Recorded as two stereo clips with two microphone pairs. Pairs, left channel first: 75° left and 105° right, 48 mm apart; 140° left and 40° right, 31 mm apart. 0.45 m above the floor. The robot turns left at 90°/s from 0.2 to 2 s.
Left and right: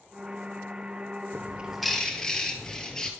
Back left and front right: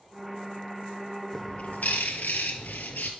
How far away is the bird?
About 1.3 m.